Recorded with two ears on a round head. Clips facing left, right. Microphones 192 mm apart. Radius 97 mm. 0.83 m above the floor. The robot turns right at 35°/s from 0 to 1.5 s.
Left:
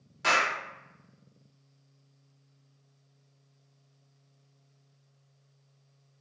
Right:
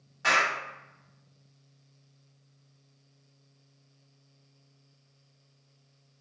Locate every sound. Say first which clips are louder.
0.2 s a clap: even; 40° left (ahead or behind), 1.5 m; by 0.5 s 30° left (ahead or behind), 1.5 m